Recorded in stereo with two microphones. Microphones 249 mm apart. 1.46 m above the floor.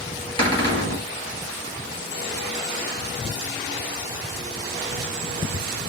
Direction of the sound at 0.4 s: 20° left (ahead or behind).